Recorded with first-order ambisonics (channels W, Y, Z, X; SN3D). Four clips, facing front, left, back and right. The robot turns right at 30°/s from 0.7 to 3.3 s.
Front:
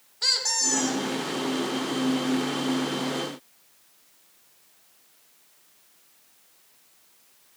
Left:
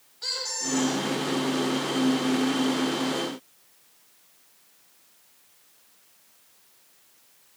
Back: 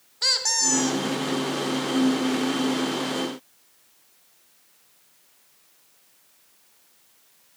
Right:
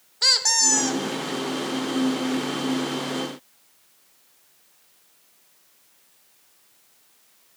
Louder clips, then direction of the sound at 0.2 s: Right 11 dB, back 2 dB; 105° right.